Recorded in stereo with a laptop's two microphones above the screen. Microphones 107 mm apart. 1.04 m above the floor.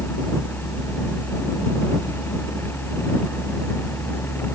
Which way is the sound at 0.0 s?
20° left (ahead or behind).